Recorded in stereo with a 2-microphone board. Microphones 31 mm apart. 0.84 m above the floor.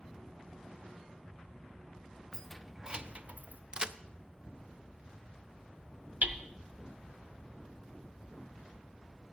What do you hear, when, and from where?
2.3 s keys jangling: 20° left (ahead or behind), 0.7 m; by 3.6 s 65° right (ahead or behind), 1.1 m
3.7 s a crack: 30° right (ahead or behind), 0.5 m
6.2 s hammering: 60° right (ahead or behind), 0.9 m